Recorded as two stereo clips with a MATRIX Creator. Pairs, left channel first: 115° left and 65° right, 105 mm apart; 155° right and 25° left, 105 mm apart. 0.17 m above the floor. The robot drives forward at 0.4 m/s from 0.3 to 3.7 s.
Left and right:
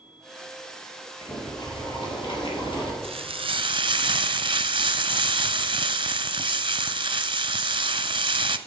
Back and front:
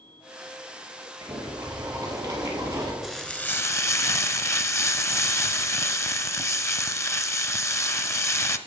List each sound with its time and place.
1.2 s boiling: 70° left, 3 m; by 2.9 s 80° left, 3 m
3.0 s frying: 70° right, 0.6 m; by 8.6 s 100° right, 0.5 m